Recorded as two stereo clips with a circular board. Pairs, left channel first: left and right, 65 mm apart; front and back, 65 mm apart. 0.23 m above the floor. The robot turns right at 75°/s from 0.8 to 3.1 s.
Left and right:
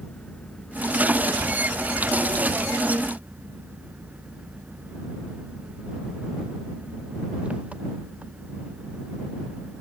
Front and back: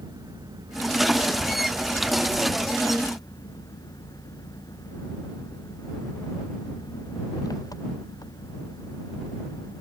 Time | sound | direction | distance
0.0 | an engine running | 170° left | ?